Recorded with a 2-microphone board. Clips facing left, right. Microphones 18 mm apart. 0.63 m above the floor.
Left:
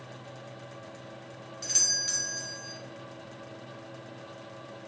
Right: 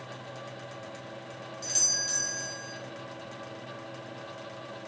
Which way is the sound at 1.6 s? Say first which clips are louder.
Left 1 dB; 15° left (ahead or behind).